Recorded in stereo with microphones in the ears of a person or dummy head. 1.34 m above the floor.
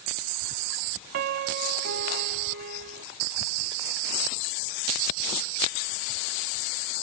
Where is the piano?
45° right (ahead or behind).